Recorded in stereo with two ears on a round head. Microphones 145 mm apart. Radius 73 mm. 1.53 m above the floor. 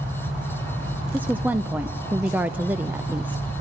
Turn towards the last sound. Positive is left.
turn(degrees=-10)  # may be behind; listen again after turning